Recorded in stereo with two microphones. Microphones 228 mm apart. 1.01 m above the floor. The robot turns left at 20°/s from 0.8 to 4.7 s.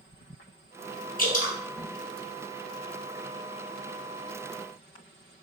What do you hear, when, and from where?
1.2 s dripping: 40° left (ahead or behind), 0.7 m; by 1.6 s 35° left (ahead or behind), 0.7 m